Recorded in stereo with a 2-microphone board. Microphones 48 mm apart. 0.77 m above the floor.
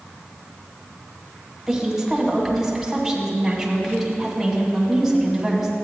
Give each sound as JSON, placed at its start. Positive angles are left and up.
{"t": 1.7, "sound": "a woman speaking", "side_deg": 0, "distance_m": 2.0}